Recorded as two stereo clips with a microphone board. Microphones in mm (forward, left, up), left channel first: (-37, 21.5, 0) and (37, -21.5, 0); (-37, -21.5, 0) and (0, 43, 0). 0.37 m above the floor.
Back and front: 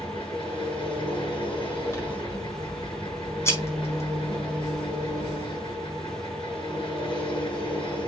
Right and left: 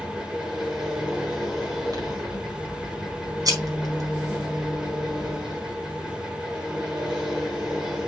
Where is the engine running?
140° left, 5 m.